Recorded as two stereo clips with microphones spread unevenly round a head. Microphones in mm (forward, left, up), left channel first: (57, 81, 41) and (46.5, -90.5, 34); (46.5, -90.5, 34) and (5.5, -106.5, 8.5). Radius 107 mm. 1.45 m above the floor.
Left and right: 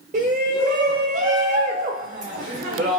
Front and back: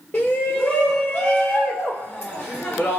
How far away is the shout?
About 0.8 m.